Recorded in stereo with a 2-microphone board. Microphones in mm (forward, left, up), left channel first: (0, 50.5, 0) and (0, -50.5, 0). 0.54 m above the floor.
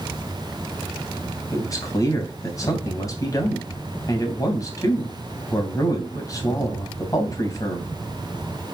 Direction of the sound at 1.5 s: 35° left (ahead or behind).